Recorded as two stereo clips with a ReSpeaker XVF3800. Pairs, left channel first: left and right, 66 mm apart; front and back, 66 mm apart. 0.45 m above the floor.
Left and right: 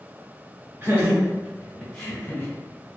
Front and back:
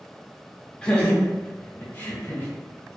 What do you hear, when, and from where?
0.8 s laughter: 70° right, 0.8 m; by 2.5 s 35° left, 0.9 m